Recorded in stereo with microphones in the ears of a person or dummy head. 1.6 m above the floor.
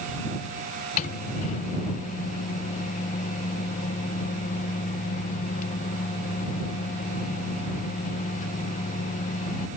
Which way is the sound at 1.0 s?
40° left (ahead or behind).